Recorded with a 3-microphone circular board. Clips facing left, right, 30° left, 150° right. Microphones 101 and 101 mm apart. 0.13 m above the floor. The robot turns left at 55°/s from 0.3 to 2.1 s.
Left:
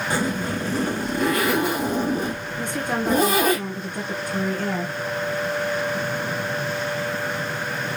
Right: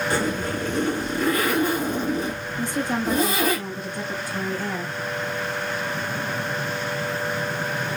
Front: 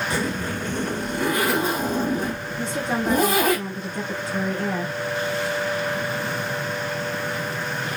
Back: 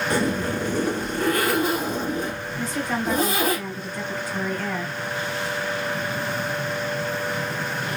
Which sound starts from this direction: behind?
A zipper, at 0.1 s.